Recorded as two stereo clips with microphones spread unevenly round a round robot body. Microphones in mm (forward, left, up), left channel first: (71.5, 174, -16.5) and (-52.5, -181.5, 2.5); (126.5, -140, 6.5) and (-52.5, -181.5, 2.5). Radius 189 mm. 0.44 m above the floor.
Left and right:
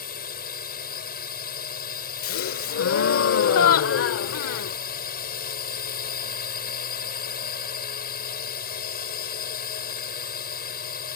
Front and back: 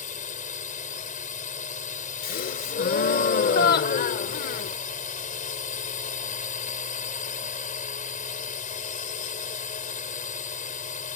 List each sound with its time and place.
0.0 s a drone: 15° left
2.2 s a gasp: 30° left